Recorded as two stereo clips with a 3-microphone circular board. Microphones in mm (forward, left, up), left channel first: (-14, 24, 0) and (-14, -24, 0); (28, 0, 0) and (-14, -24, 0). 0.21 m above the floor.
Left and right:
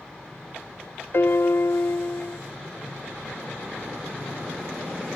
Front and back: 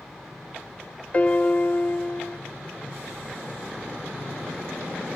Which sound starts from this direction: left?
A piano, at 1.1 s.